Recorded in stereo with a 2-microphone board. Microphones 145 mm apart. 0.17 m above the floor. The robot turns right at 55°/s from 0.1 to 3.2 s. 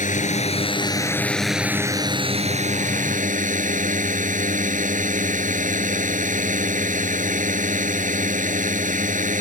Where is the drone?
105° left; by 9.4 s 85° right.